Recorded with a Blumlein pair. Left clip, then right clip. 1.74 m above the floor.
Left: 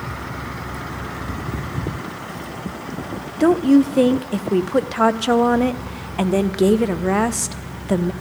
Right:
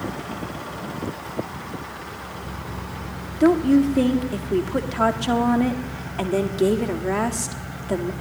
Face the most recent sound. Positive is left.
turn(degrees=15)